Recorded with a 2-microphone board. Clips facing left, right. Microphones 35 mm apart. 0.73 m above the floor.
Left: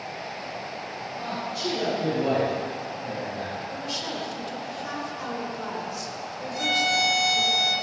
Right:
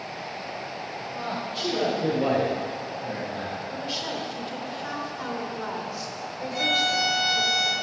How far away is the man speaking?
About 3.5 m.